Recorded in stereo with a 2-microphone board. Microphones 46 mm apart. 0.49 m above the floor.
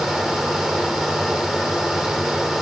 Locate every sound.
Only background noise.